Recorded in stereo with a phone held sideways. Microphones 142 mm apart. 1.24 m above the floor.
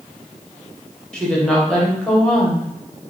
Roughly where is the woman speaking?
Centre.